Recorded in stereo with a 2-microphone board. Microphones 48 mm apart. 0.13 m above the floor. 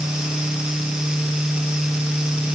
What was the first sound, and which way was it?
Only background noise.